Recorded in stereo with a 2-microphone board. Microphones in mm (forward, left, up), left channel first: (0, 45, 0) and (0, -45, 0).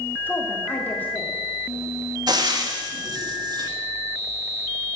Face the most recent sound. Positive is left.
turn(degrees=-50)  # may be behind; listen again after turning